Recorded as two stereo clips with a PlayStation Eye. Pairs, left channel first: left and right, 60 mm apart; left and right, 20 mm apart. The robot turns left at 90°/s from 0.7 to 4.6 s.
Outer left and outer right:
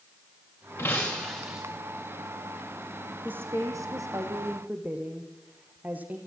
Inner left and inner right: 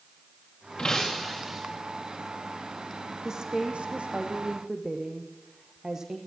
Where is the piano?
No piano in this recording.